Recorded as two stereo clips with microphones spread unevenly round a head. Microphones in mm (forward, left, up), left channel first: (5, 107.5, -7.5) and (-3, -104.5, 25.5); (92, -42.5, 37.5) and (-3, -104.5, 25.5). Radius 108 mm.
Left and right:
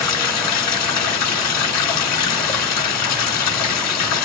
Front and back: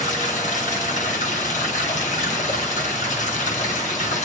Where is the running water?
75° left, 3 m.